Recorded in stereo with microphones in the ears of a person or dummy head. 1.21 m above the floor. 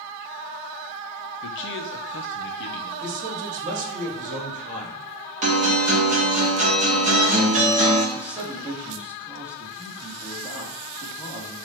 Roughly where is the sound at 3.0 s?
Right.